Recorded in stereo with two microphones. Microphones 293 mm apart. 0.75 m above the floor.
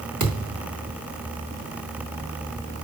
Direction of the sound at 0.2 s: 90° right.